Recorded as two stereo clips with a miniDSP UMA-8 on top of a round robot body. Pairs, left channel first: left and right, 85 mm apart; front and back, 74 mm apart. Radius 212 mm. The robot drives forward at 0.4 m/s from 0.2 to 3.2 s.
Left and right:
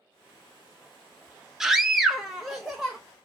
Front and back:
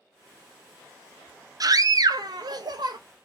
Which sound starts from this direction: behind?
A scream, at 1.6 s.